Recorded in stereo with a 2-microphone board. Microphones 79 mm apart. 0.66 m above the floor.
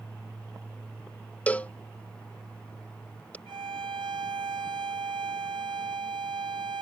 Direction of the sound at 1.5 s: 20° left (ahead or behind).